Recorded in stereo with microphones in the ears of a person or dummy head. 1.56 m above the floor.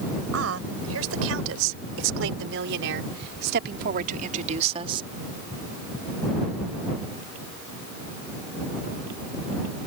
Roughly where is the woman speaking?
Right.